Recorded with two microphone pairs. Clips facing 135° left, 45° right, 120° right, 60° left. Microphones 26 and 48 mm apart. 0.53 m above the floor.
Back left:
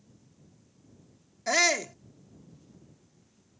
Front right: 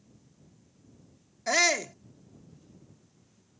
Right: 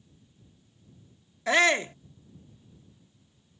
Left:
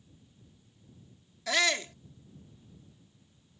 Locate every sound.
1.5 s a shout: 140° right